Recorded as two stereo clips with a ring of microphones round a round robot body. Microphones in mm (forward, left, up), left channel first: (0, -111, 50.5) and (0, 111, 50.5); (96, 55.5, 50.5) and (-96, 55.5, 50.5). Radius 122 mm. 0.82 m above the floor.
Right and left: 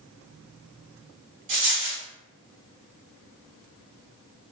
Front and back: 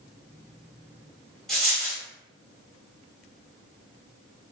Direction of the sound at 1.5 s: 90° left.